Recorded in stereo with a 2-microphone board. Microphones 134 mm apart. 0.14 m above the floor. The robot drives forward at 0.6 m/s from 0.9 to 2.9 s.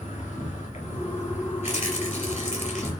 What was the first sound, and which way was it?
An insect, 60° left (ahead or behind).